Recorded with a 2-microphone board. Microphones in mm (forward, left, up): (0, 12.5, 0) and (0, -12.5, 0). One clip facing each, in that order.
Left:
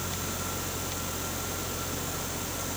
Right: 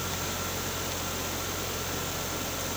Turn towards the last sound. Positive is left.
No sound to turn to.